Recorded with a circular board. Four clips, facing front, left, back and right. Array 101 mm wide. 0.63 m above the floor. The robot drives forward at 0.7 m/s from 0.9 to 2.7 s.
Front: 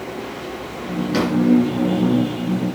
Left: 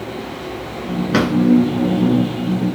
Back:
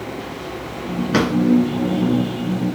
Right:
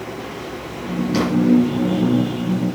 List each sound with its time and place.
1.1 s a drawer: 125° left, 3.5 m